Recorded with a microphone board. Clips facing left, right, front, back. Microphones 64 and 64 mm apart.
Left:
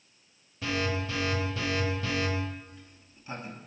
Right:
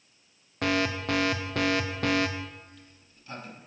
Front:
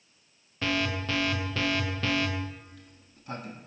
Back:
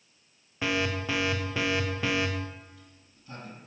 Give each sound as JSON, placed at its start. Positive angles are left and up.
{"t": 0.6, "sound": "an alarm", "azimuth_deg": -105, "distance_m": 0.7}
{"t": 2.7, "sound": "a sliding door", "azimuth_deg": 25, "distance_m": 0.9}